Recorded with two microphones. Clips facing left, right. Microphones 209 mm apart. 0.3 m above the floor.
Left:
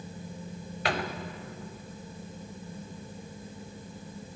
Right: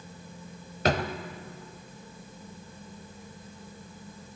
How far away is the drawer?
About 0.7 m.